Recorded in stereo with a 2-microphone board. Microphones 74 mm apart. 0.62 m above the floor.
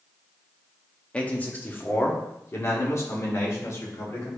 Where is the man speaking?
20° left (ahead or behind), 1.1 m; by 4.4 s 45° left (ahead or behind), 3 m.